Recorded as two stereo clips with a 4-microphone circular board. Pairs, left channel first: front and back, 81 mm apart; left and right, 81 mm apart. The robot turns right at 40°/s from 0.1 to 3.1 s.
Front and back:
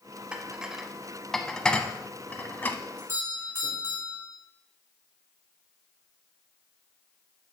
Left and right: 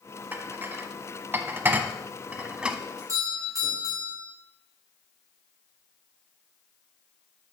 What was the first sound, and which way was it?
Dishes clattering, 120° right.